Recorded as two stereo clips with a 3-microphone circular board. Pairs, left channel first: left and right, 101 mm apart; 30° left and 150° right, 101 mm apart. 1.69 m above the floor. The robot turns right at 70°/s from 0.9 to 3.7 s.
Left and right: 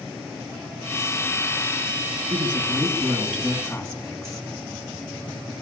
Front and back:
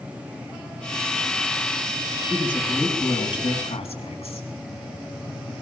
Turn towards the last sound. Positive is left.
turn(degrees=15)